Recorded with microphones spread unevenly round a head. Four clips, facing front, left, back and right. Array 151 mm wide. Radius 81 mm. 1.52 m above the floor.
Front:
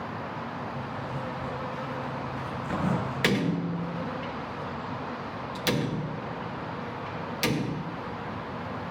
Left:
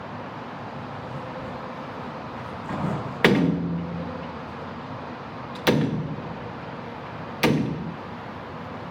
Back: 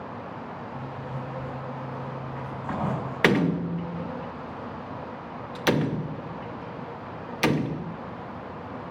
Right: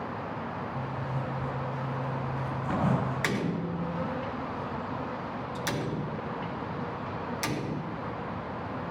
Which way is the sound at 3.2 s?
115° left.